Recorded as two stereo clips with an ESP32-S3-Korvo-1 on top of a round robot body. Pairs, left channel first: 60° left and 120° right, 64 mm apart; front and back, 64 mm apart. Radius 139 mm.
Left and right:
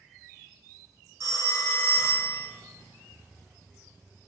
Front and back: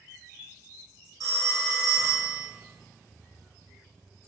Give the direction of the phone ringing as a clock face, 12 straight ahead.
5 o'clock.